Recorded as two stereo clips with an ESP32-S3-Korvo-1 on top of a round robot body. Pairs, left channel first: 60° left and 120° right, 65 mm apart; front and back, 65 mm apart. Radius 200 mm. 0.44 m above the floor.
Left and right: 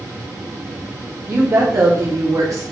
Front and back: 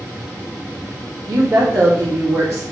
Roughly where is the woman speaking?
Behind.